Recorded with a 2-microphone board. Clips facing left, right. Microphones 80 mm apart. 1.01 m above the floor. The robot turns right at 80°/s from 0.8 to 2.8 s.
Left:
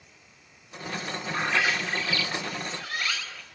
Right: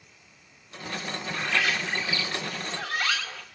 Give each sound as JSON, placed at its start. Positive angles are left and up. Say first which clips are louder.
{"t": 1.3, "sound": "a bird", "louder": "left 2 dB", "azimuth_deg": 145, "distance_m": 1.3}